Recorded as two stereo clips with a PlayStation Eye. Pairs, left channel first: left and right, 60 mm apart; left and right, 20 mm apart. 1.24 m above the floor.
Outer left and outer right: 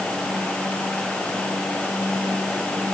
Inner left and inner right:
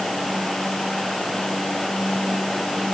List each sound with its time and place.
Only background noise.